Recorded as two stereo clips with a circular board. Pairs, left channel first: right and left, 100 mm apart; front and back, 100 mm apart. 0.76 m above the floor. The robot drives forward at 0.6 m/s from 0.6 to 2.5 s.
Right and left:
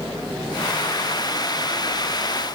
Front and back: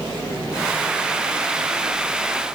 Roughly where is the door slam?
No door slam in this recording.